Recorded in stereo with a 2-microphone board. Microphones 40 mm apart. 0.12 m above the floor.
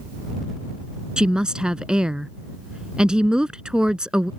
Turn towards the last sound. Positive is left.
turn(degrees=-20)  # may be behind; listen again after turning